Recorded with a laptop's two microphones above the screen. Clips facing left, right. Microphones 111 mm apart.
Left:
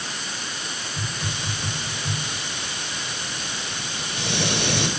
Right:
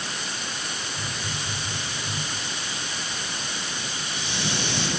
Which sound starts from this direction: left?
A hiss, at 1.0 s.